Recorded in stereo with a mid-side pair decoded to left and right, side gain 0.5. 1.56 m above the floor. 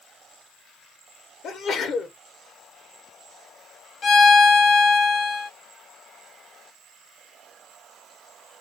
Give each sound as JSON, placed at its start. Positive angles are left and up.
{"t": 1.4, "sound": "a sneeze", "azimuth_deg": 60, "distance_m": 1.7}
{"t": 4.0, "sound": "a violin", "azimuth_deg": 45, "distance_m": 0.9}